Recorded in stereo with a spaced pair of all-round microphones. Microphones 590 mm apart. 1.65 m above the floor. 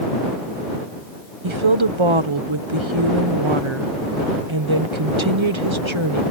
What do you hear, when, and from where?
1.4 s a woman speaking: 50° right (ahead or behind)